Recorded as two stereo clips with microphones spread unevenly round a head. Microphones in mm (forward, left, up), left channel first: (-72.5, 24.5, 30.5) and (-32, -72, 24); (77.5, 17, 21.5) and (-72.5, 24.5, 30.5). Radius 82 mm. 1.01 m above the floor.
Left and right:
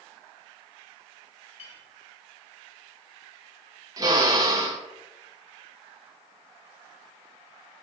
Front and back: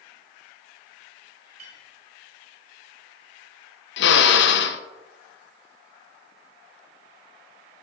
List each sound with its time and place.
1.6 s a clink: 135° left, 2.5 m
4.0 s a drill: straight ahead, 0.5 m